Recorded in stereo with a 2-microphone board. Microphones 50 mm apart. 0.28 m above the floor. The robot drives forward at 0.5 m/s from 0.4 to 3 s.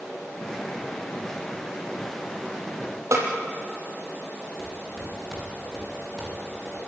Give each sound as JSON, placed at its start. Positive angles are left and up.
{"t": 3.1, "sound": "a snare drum", "side_deg": -80, "distance_m": 5.0}
{"t": 4.6, "sound": "footsteps", "side_deg": 10, "distance_m": 9.5}